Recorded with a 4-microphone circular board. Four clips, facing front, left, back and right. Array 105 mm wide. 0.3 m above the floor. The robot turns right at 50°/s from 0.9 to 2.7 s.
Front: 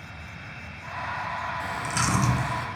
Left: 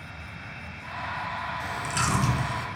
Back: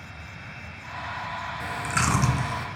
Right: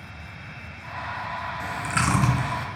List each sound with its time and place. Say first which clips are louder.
1.6 s chewing: right 5 dB, back 4 dB; 145° right, 0.8 m; by 2.7 s 95° right, 0.8 m